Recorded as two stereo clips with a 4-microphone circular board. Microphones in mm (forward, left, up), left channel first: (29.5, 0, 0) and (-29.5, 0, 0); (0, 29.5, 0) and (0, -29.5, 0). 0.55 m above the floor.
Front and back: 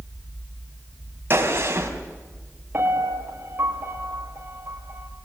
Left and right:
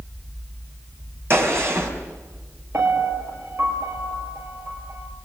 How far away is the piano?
About 4 m.